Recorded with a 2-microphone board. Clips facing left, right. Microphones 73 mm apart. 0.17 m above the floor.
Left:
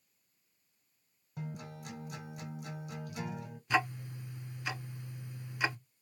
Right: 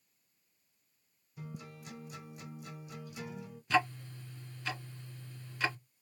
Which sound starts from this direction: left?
A guitar, at 1.4 s.